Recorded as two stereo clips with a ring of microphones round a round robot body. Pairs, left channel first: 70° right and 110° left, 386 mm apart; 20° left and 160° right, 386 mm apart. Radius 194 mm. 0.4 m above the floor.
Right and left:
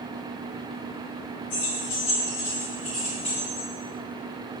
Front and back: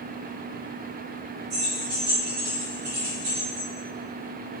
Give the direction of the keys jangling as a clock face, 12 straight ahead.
4 o'clock.